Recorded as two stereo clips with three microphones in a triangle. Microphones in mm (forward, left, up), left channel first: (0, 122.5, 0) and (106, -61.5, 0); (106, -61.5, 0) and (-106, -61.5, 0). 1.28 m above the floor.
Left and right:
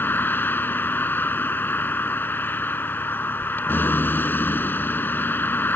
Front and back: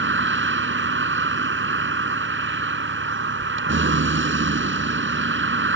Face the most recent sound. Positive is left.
turn(degrees=-160)